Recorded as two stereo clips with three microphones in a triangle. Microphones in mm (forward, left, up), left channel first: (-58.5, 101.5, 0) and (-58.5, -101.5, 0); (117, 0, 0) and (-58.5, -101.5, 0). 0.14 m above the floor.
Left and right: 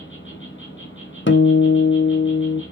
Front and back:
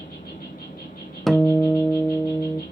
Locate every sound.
0.0 s an insect: 75° left, 3 m
1.3 s a guitar: 120° left, 0.7 m